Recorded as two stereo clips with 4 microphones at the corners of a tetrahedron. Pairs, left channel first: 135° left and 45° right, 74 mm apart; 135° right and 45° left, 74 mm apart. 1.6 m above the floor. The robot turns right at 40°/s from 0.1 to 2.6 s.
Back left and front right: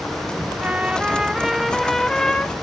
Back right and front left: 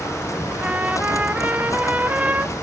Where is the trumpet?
Straight ahead, 0.6 m; by 2.5 s 80° left, 0.6 m.